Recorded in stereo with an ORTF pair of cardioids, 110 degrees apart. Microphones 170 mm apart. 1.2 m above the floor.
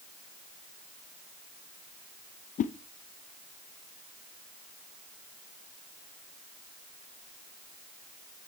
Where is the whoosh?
45° left, 0.8 m.